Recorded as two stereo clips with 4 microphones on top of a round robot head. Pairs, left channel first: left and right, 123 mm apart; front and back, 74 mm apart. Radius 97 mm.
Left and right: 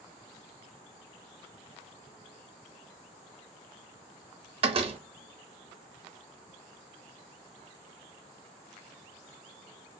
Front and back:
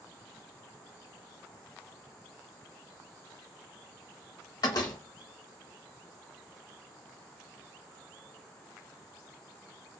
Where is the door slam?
50° right, 0.6 m.